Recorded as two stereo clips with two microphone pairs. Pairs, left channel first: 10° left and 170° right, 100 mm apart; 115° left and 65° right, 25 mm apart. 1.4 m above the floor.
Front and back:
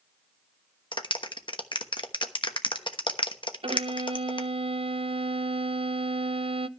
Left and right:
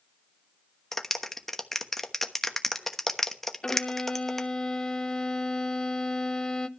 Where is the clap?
35° left, 1.0 m.